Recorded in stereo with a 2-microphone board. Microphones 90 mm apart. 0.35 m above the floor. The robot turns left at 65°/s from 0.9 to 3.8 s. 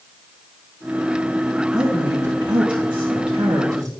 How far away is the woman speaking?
About 3.5 m.